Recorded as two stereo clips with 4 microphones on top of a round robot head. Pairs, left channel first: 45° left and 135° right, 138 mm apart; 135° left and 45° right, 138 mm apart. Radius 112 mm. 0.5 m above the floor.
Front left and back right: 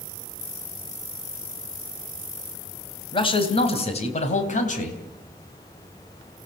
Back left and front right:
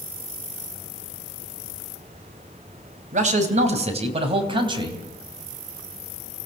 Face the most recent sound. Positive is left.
turn(degrees=15)